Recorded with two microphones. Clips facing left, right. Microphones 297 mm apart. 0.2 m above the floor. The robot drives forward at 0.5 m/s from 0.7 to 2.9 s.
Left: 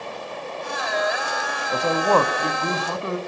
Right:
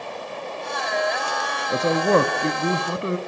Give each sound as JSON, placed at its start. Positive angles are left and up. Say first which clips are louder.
{"t": 1.7, "sound": "a man speaking", "louder": "right 2 dB", "side_deg": -20, "distance_m": 1.2}